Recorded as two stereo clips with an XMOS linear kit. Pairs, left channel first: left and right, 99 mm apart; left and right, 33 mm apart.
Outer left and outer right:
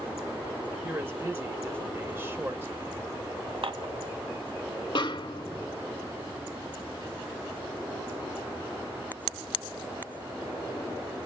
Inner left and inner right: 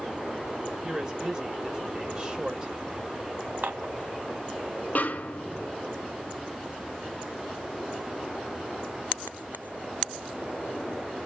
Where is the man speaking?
25° right (ahead or behind), 1.4 m.